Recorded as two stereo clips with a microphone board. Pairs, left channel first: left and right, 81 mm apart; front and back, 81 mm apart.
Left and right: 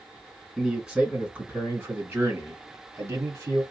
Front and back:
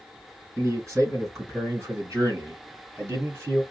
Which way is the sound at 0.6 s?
165° right.